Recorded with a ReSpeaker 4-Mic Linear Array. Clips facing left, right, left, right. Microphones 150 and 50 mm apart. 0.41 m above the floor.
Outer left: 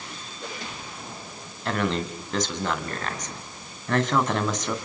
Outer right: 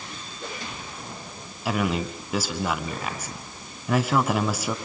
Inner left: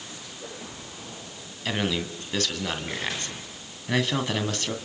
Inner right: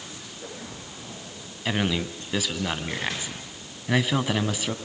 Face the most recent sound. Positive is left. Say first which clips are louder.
# outer right 1 dB, inner right 1 dB
turn(degrees=-10)  # may be behind; listen again after turning